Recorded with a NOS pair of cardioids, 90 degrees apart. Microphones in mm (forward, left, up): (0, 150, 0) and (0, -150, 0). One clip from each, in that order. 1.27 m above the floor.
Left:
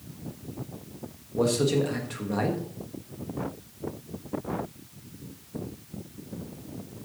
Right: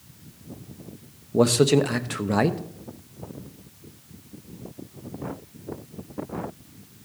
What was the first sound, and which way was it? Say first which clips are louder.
A man speaking: right 6 dB; 50° right.